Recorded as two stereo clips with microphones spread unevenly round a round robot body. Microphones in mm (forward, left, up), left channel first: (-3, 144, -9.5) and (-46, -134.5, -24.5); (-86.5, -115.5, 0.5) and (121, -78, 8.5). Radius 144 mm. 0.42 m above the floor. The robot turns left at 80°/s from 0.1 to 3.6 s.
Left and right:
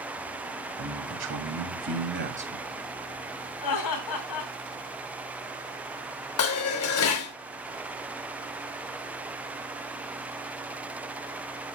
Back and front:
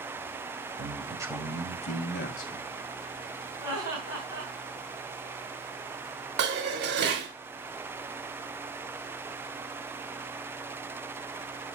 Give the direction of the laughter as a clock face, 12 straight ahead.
9 o'clock.